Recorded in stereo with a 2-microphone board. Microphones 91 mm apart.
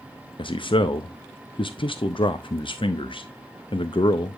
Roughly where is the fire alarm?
I don't hear a fire alarm.